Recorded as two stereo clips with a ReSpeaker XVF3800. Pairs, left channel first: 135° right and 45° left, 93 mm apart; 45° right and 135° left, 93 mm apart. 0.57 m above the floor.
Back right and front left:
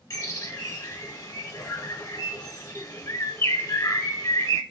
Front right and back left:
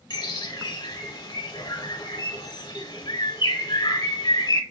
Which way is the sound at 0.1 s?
85° right.